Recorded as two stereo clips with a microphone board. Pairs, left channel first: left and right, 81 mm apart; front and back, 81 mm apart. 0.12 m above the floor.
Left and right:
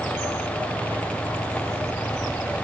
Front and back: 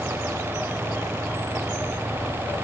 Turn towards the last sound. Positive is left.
No sound to turn to.